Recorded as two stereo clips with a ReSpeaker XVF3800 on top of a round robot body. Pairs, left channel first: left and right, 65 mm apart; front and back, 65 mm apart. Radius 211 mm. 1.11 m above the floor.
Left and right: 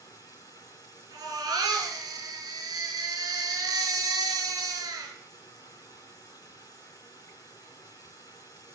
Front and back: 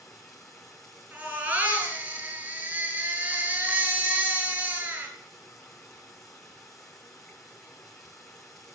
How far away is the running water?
About 0.8 m.